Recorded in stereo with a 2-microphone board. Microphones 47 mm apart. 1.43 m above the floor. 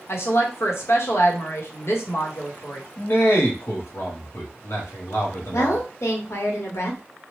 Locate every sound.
0.1 s a woman speaking: 65° left (ahead or behind), 0.9 m
3.0 s a man speaking: 60° left (ahead or behind), 1.1 m
5.5 s a woman speaking: 80° left, 1.0 m